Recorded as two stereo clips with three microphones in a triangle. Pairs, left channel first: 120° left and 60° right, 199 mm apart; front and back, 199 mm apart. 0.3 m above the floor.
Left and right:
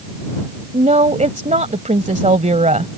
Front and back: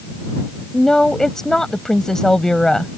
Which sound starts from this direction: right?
A woman speaking, at 0.7 s.